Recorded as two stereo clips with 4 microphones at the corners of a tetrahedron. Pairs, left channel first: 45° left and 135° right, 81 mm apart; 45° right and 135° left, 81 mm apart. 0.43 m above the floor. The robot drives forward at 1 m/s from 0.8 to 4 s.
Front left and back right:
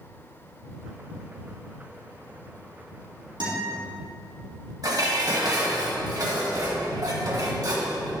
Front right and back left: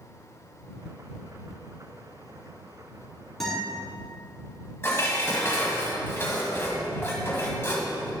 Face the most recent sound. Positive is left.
turn(degrees=-105)